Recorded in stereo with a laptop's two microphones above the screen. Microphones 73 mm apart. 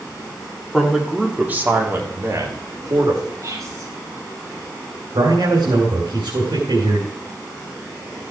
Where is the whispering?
50° right (ahead or behind), 4.5 m.